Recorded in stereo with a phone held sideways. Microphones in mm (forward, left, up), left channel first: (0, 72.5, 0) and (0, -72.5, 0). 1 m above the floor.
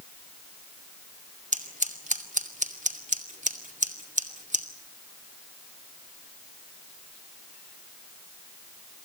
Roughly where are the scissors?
Right.